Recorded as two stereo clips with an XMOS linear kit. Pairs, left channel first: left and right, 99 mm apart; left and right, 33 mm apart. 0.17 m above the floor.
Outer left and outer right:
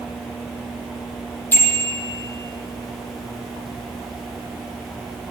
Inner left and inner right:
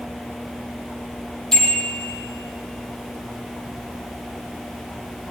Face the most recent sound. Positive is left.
turn(degrees=20)  # may be behind; listen again after turning